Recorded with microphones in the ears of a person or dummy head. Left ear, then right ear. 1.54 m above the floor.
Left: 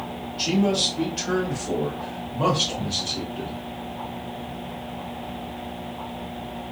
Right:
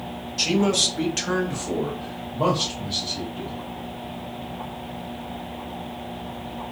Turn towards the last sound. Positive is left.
turn(degrees=35)  # may be behind; listen again after turning